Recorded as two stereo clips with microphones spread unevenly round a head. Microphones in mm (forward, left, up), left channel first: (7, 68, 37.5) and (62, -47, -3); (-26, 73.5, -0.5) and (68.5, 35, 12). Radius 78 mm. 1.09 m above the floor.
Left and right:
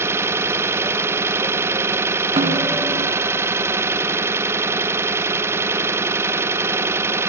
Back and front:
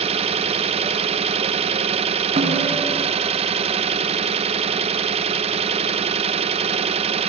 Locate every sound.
0.0 s an engine running: straight ahead, 0.8 m
2.4 s a snare drum: 20° right, 3.5 m